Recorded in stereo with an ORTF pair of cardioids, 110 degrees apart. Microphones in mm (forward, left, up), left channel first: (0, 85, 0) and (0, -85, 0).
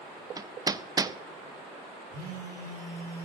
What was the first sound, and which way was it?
Hammering, 20° right.